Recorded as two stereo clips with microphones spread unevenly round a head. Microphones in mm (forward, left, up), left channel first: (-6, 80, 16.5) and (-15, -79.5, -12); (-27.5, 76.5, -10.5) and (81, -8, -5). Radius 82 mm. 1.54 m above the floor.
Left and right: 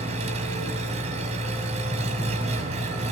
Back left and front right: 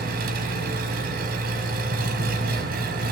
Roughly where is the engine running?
Ahead right.